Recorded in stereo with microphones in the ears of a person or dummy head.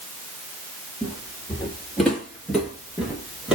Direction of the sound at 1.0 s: 5° left (ahead or behind).